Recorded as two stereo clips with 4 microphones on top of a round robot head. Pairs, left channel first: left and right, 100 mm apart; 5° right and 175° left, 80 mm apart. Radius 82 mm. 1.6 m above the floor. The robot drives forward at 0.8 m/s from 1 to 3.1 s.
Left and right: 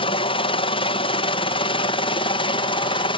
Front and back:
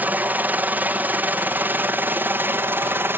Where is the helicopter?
110° left; by 3.2 s 115° left.